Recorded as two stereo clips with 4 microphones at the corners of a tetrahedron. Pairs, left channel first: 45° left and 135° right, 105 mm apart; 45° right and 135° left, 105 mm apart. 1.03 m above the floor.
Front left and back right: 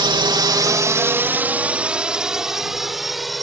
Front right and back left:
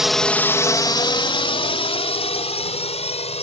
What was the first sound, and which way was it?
A drone, 140° right.